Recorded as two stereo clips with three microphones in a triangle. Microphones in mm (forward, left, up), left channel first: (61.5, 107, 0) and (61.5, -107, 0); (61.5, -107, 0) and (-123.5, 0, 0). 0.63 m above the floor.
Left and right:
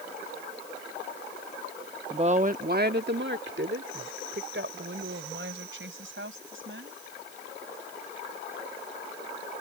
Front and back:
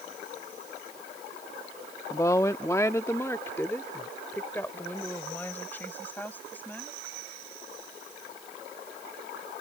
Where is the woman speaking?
85° right; by 7.0 s 110° right.